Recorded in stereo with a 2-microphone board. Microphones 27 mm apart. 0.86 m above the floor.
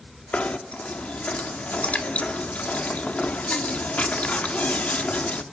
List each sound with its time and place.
0.3 s knocking: 60° left (ahead or behind), 1.3 m